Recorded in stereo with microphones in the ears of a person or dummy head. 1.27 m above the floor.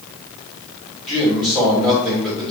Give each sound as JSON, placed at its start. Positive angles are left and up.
{"t": 1.1, "sound": "a man speaking", "side_deg": 0, "distance_m": 3.5}